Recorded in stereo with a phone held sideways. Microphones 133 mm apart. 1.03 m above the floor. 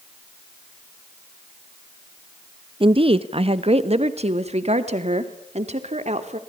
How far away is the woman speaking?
About 1.0 m.